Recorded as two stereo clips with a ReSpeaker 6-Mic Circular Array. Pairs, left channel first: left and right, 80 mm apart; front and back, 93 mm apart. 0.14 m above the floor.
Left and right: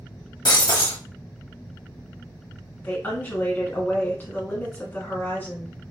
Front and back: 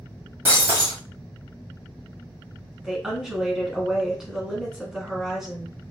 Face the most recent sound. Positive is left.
turn(degrees=105)